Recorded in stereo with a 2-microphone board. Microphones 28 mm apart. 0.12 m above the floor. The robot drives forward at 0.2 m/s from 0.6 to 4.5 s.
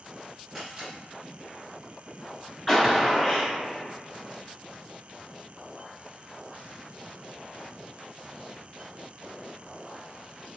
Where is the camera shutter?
15° right (ahead or behind), 1.4 m.